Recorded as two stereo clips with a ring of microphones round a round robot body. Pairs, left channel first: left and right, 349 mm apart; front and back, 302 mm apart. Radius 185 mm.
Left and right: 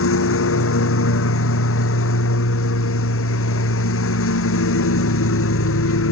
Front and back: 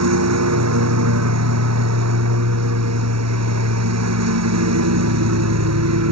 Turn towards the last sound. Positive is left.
turn(degrees=145)